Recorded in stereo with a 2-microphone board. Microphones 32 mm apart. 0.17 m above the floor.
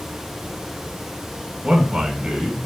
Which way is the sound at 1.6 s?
35° right (ahead or behind).